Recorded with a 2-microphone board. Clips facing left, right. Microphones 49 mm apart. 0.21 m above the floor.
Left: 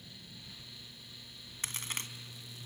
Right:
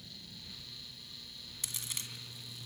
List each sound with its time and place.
1.6 s a crack: 40° left (ahead or behind), 1.3 m